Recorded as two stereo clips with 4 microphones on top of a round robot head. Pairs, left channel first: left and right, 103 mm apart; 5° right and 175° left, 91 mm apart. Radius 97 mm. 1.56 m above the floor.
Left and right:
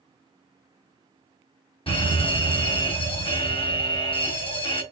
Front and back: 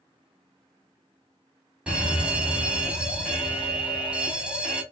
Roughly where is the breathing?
I don't hear breathing.